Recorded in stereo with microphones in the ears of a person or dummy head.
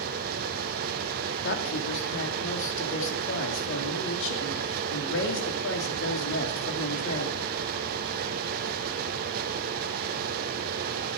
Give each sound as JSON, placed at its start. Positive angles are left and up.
{"t": 0.0, "sound": "a fan", "side_deg": -50, "distance_m": 0.9}
{"t": 1.4, "sound": "a woman speaking", "side_deg": 70, "distance_m": 3.0}